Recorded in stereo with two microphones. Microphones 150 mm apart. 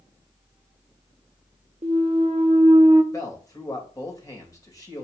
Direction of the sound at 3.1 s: 20° left (ahead or behind).